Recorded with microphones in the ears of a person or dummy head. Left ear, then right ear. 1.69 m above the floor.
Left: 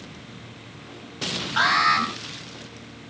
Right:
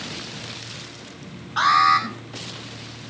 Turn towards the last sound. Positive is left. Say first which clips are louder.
# right 3 dB
turn(degrees=15)  # may be behind; listen again after turning